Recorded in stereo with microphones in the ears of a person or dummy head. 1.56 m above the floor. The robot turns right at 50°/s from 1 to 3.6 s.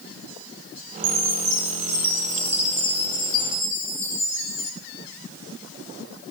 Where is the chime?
80° right, 4.5 m; by 4.7 s 45° left, 4.5 m.